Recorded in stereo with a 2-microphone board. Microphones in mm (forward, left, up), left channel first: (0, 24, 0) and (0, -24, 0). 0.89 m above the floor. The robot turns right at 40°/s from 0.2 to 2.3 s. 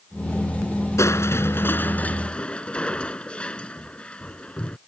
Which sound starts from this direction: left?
Crushing, at 1.0 s.